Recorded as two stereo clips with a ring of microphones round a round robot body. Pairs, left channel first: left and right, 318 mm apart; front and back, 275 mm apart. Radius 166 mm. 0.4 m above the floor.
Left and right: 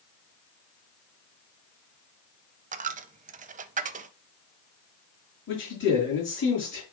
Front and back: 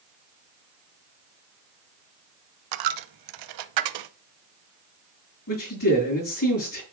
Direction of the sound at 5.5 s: 35° left.